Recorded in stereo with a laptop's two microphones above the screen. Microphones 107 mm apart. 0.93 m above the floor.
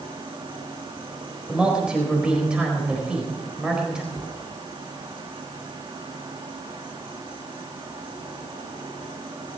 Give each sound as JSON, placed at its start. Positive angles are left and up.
{"t": 0.0, "sound": "an insect", "side_deg": -50, "distance_m": 2.5}
{"t": 1.5, "sound": "a man speaking", "side_deg": -10, "distance_m": 4.5}
{"t": 4.1, "sound": "a cupboard door", "side_deg": -35, "distance_m": 5.0}